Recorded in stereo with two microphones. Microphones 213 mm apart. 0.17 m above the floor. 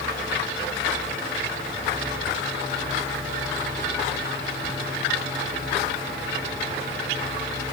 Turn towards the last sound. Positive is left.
No sound to turn to.